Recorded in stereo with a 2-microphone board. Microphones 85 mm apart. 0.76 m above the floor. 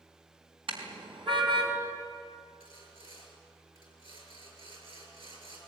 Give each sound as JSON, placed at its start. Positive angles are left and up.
{"t": 0.7, "sound": "a car horn", "side_deg": -70, "distance_m": 4.0}
{"t": 2.6, "sound": "sawing", "side_deg": -75, "distance_m": 6.5}